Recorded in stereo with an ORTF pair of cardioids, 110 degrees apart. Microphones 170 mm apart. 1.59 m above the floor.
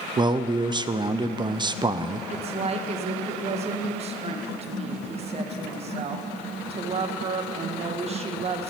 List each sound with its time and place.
0.2 s a man speaking: 30° right, 0.5 m
2.3 s a woman speaking: 40° right, 1.3 m